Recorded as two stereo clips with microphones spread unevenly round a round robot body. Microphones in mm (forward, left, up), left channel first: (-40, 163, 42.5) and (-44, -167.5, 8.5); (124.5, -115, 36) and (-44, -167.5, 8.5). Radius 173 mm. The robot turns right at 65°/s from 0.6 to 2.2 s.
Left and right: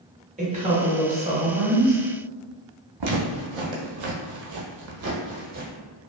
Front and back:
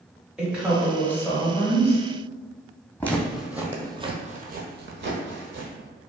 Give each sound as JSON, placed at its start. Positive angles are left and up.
{"t": 0.4, "sound": "a woman speaking", "azimuth_deg": -105, "distance_m": 1.2}
{"t": 3.0, "sound": "footsteps", "azimuth_deg": -60, "distance_m": 1.1}